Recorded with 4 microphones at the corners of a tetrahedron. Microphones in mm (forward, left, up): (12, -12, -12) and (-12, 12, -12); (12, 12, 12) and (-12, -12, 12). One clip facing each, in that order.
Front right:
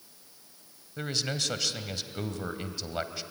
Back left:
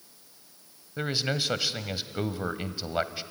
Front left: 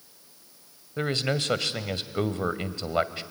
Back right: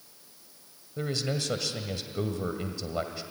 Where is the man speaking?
70° left, 1.3 m.